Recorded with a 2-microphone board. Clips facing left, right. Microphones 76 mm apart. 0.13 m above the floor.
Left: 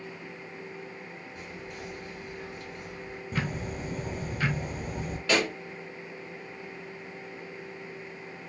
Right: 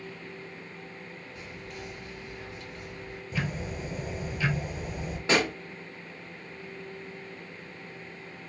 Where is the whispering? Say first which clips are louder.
Left 1 dB; 20° left (ahead or behind), 2.5 m.